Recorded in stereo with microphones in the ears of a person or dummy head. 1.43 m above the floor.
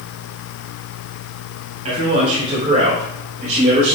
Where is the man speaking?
45° right (ahead or behind), 3.5 m; by 4.0 s 60° right (ahead or behind), 4.5 m.